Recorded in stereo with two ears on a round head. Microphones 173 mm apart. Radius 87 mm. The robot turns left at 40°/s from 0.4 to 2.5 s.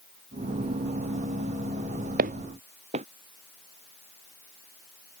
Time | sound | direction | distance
2.2 | footsteps | 50° right (ahead or behind) | ?